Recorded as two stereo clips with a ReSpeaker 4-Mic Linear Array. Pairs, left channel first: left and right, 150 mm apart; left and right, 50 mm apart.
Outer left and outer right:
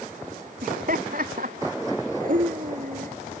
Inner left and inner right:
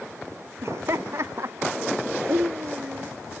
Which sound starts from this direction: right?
Laughter, at 0.6 s.